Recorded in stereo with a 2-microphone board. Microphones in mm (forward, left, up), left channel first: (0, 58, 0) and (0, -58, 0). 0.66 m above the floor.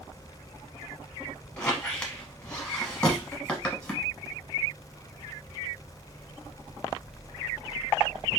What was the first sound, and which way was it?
A squeak, 10° left (ahead or behind).